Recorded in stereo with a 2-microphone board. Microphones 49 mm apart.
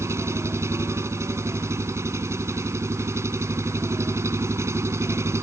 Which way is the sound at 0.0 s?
70° right (ahead or behind).